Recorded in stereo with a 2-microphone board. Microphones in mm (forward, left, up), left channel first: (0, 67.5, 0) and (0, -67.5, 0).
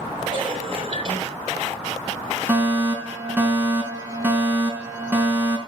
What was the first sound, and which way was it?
A cough, 40° right (ahead or behind).